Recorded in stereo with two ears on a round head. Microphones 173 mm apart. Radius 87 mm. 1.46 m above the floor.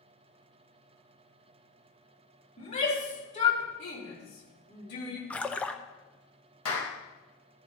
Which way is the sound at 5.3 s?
5° left (ahead or behind).